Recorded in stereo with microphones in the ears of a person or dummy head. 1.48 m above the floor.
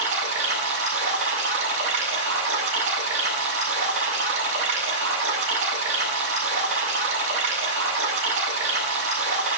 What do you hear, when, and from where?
0.0 s running water: 70° right (ahead or behind), 7.5 m